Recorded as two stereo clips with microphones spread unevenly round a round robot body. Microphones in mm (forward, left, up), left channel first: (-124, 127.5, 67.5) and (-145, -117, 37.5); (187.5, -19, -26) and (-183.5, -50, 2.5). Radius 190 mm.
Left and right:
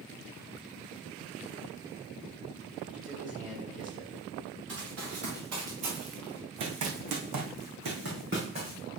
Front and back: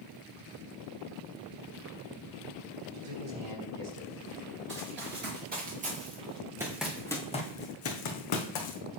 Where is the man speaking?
125° right, 4.5 m.